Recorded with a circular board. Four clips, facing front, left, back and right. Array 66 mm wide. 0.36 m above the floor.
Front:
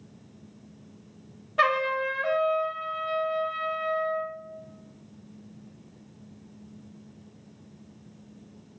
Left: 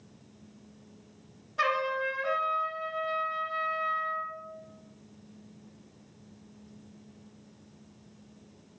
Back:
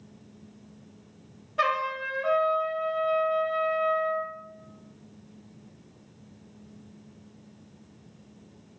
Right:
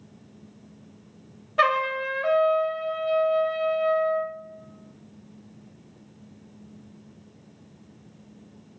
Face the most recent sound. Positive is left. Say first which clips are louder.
# right 6 dB, front 3 dB
turn(degrees=-70)